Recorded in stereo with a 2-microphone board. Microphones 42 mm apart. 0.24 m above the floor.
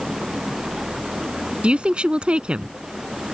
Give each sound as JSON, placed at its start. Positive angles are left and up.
{"t": 0.0, "sound": "running water", "side_deg": -10}
{"t": 1.6, "sound": "a woman speaking", "side_deg": -30}